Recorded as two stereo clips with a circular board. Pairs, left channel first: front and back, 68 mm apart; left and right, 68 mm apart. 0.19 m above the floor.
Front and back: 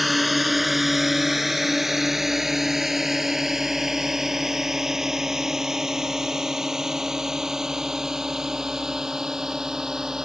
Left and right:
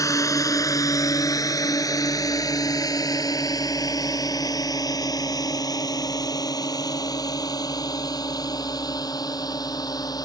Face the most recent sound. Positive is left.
turn(degrees=100)